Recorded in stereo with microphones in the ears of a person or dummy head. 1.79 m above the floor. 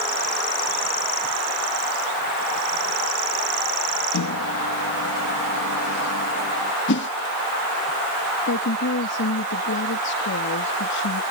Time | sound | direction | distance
4.1 | a microwave | 85° left | ?
6.9 | a whoosh | 60° left (ahead or behind) | ?
8.5 | a woman speaking | 60° left (ahead or behind) | ?